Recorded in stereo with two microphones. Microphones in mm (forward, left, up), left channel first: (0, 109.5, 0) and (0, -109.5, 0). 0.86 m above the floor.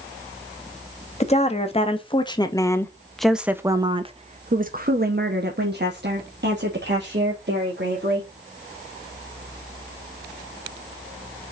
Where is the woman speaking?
30° left (ahead or behind), 1.5 m; by 8.3 s 50° right (ahead or behind), 2.5 m.